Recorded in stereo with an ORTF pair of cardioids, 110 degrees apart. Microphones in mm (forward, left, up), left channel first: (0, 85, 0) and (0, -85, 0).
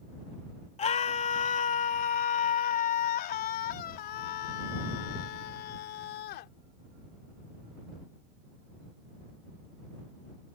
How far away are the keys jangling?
I don't hear keys jangling.